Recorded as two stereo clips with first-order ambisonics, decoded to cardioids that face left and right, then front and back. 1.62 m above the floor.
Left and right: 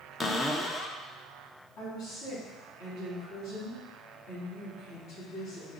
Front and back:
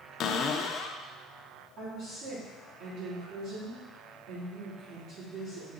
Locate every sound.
0.2 s a cupboard door: 15° left, 0.5 m
1.8 s a woman speaking: 135° left, 3 m